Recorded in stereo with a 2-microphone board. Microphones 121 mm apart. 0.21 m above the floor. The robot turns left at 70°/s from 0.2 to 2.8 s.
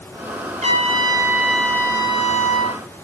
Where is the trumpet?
115° right, 4 m; by 2.8 s 90° left, 4 m.